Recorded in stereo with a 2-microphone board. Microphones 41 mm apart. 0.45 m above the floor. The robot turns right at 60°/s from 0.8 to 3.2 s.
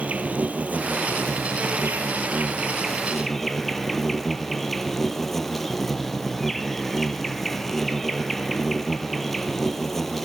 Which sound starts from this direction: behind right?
An insect, at 0.0 s.